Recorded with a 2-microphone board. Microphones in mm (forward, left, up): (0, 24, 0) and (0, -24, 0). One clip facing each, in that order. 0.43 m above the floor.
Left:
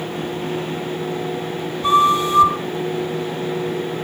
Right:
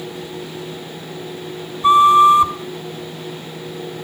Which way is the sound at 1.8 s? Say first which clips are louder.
Right 6 dB; 10° right (ahead or behind).